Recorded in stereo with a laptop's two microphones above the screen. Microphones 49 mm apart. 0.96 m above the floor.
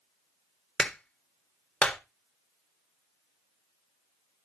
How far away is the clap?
About 1.4 m.